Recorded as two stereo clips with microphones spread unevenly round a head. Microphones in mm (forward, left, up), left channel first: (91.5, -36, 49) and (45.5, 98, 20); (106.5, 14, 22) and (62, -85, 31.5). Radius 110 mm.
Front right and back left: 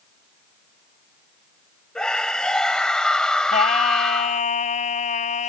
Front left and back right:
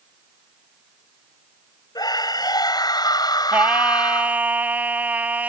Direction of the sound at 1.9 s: 15° left.